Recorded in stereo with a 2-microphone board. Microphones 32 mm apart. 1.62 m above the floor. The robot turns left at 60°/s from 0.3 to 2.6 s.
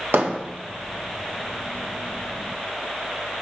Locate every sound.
0.1 s hammering: 75° right (ahead or behind), 1.8 m; by 0.4 s 70° right (ahead or behind), 1.8 m